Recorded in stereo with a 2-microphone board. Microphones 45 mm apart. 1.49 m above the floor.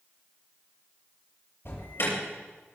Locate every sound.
1.6 s an alarm: 65° left (ahead or behind), 7 m